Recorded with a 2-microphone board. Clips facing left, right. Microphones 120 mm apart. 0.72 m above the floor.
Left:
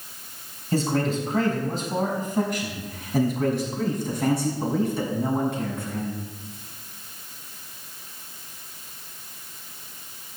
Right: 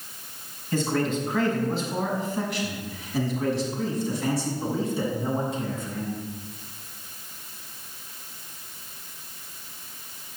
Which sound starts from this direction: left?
A man speaking, at 0.7 s.